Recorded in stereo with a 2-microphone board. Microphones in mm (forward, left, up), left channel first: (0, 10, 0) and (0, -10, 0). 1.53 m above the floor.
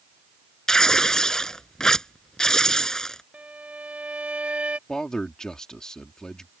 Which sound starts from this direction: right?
A violin, at 3.3 s.